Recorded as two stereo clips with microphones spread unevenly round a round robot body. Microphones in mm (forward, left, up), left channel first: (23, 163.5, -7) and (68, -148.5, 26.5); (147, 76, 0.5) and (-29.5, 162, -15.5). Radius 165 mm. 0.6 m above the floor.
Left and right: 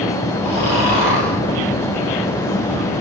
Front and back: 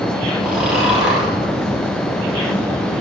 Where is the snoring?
65° left, 5.5 m.